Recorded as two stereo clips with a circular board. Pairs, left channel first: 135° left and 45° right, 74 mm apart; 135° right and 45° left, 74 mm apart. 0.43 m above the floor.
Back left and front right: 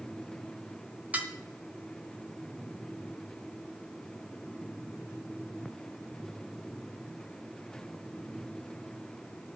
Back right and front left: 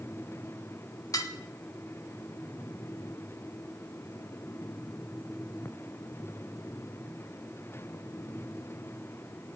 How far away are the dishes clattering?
About 1.1 m.